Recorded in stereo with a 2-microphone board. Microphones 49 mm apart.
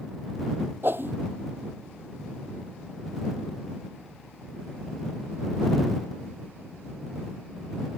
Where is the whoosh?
45° right (ahead or behind).